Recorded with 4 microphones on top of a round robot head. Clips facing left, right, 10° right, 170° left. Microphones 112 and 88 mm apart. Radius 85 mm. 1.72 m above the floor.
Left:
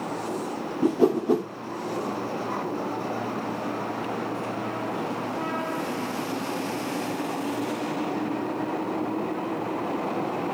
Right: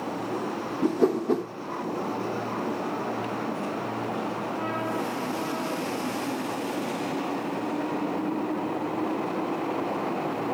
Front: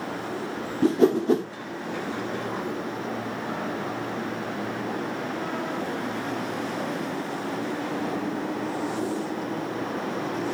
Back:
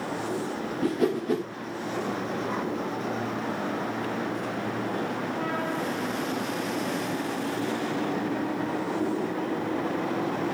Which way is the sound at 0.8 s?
15° left.